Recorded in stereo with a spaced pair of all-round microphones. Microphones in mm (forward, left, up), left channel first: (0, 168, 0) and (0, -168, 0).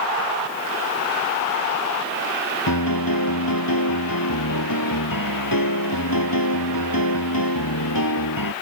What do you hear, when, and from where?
2.7 s a piano: 80° left